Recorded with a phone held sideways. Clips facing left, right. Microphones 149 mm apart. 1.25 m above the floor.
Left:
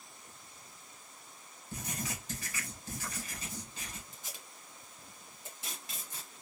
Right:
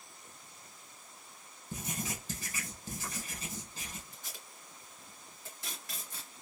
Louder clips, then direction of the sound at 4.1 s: Even; 20° left (ahead or behind).